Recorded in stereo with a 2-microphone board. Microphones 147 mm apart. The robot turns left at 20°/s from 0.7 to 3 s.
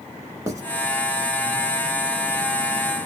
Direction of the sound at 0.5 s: 25° right (ahead or behind).